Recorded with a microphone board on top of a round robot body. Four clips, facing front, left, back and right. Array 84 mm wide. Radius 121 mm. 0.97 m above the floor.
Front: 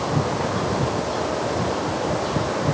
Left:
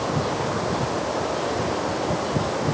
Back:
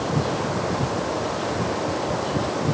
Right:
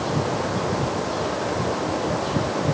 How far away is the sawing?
No sawing in this recording.